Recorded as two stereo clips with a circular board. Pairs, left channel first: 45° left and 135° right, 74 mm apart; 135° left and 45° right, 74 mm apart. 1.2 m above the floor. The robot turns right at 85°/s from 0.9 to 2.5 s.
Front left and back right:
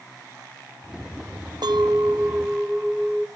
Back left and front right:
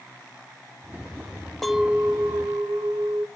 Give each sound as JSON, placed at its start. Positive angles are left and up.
{"t": 1.6, "sound": "a clink", "azimuth_deg": -140, "distance_m": 0.7}